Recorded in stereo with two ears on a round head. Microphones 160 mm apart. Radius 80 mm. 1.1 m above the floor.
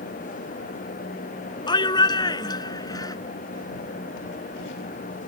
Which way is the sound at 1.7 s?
25° left (ahead or behind).